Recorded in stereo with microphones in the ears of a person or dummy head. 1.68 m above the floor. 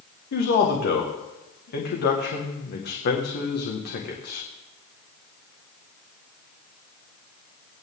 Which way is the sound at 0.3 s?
55° left (ahead or behind).